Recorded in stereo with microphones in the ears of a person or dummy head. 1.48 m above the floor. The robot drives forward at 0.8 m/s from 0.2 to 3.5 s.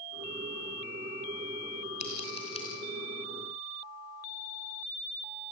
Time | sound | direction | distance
2.0 | scissors | 35° left (ahead or behind) | 2.5 m